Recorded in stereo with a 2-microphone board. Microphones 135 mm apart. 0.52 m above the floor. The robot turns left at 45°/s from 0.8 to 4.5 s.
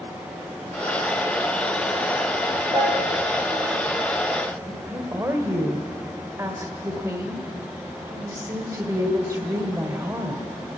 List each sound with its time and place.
2.7 s a piano: 50° right (ahead or behind), 6.5 m; by 3.0 s 35° right (ahead or behind), 6.5 m
4.7 s a woman speaking: 30° right (ahead or behind), 1.7 m